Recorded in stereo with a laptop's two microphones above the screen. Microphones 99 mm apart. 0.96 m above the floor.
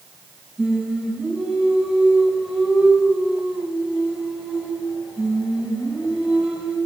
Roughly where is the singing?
Centre.